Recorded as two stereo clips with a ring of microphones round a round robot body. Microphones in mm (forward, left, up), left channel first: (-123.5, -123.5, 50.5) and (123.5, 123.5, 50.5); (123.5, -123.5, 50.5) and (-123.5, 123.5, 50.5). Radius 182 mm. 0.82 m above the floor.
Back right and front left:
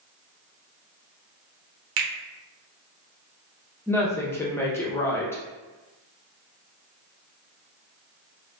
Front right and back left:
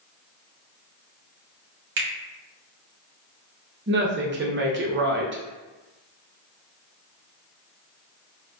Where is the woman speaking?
150° left, 0.6 m.